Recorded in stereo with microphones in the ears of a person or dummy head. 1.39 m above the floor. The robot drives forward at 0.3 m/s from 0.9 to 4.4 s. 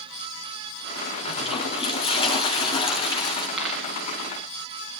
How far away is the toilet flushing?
About 3 m.